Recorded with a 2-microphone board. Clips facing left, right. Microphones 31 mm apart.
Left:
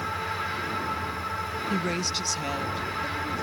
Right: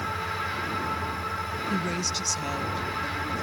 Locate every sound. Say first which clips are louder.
1.7 s a woman speaking: left 1 dB; 25° left (ahead or behind); by 3.4 s 10° left (ahead or behind)